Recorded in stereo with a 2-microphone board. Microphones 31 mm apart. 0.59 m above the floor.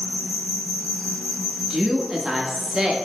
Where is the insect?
25° right (ahead or behind), 1.8 m.